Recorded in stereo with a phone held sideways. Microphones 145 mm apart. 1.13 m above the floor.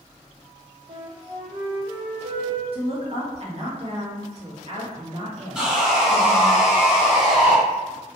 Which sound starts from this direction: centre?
Sawing, at 5.5 s.